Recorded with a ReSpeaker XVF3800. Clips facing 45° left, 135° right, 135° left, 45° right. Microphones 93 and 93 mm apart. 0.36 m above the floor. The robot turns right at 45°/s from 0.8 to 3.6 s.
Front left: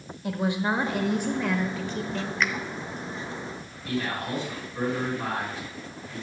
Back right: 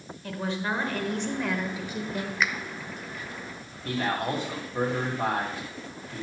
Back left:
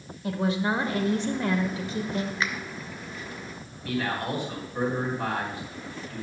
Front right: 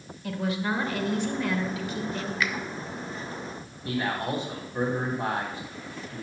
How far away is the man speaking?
About 2.5 m.